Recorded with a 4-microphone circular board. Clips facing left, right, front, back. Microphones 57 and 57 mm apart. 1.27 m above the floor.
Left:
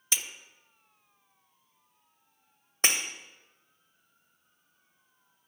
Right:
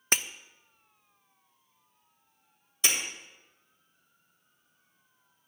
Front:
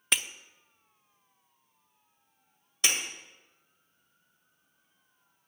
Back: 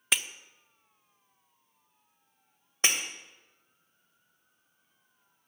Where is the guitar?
No guitar in this recording.